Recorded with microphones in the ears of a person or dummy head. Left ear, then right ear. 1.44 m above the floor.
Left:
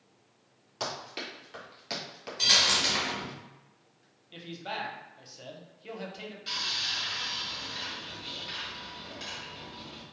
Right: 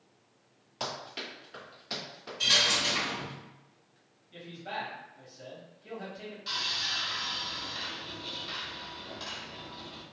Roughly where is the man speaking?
Left.